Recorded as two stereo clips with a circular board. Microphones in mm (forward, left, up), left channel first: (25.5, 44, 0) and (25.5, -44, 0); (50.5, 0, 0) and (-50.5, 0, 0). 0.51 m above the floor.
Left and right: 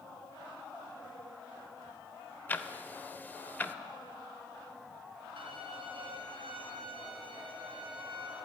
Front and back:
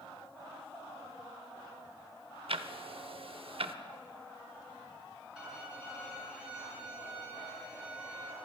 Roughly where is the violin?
Right.